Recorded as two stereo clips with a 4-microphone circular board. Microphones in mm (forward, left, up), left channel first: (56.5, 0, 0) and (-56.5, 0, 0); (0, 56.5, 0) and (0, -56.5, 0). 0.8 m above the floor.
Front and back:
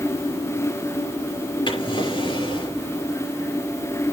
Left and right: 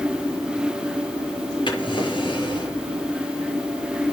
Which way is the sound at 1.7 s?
45° left.